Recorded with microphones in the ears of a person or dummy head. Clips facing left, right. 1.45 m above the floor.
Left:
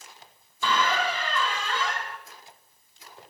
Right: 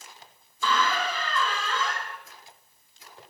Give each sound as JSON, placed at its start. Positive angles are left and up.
{"t": 0.6, "sound": "a squeak", "side_deg": 15, "distance_m": 0.6}